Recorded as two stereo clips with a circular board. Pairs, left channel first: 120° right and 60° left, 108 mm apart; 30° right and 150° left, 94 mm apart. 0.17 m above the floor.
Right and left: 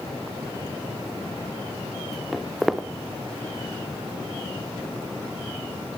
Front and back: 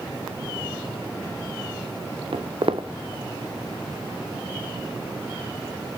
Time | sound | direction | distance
2.3 | footsteps | 150° left | 0.9 m